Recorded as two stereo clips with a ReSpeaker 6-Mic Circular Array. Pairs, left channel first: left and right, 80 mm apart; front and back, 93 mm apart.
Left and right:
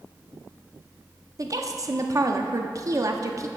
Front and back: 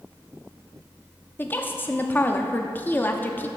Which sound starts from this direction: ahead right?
A woman speaking, at 1.4 s.